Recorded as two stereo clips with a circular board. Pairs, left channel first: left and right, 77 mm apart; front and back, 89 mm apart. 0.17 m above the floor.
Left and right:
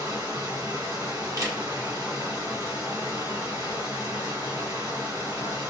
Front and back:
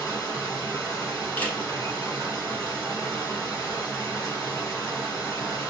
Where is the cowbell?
No cowbell in this recording.